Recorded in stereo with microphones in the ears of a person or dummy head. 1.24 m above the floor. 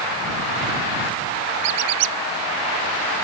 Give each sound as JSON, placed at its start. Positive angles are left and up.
{"t": 1.6, "sound": "a squeak", "side_deg": -75}